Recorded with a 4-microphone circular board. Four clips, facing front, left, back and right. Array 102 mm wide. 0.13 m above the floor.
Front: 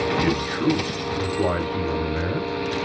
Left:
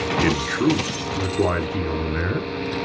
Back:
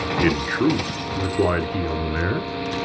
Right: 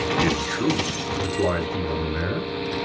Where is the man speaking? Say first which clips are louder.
Left 6 dB, back 2 dB; 155° left, 1.8 m.